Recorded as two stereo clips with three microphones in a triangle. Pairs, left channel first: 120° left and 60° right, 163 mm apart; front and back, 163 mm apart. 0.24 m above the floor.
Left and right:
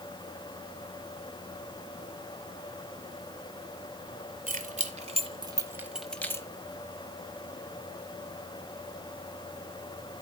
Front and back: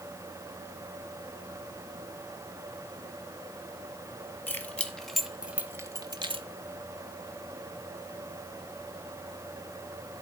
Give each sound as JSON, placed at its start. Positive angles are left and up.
{"t": 4.5, "sound": "keys jangling", "azimuth_deg": -75, "distance_m": 1.4}